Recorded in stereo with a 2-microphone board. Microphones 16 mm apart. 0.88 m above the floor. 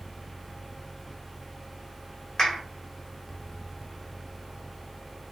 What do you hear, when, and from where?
2.4 s a clap: 35° left (ahead or behind), 1.8 m